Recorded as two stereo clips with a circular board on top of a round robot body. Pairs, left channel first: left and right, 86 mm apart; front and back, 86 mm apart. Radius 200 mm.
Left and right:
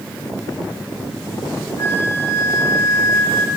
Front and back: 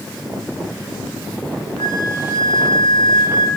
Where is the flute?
30° left, 2.5 m.